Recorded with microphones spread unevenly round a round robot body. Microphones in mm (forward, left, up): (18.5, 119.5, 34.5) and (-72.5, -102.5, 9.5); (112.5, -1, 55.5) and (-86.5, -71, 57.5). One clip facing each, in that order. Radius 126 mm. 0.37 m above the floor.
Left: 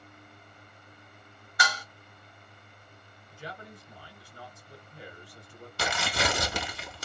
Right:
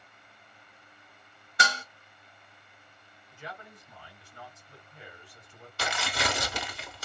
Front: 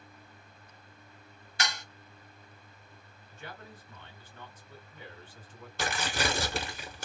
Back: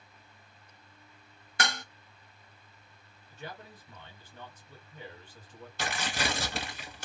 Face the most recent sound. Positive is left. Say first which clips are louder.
# left 2 dB, front 2 dB
turn(degrees=75)